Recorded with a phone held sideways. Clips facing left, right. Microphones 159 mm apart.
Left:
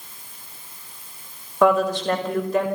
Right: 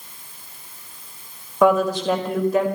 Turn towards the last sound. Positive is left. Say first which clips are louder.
# right 1 dB
turn(degrees=-5)  # may be behind; listen again after turning